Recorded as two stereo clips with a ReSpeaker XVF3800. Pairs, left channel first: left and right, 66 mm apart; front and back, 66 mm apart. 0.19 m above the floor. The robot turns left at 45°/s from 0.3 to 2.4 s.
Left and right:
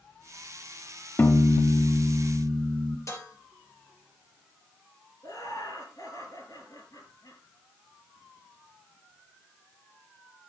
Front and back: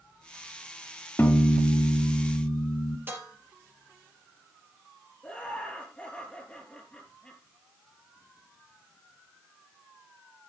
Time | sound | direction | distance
1.2 | a piano | 45° left | 0.7 m
3.1 | dishes clattering | 125° left | 3 m
5.2 | laughter | 75° left | 4 m